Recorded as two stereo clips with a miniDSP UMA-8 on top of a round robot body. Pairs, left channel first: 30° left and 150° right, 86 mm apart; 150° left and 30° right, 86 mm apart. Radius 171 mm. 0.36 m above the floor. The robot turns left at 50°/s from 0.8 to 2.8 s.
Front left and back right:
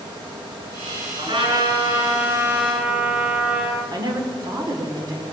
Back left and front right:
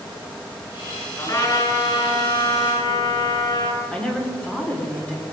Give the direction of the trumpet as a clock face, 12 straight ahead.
5 o'clock.